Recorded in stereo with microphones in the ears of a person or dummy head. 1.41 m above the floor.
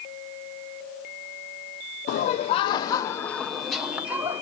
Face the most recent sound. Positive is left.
turn(degrees=-15)  # may be behind; listen again after turning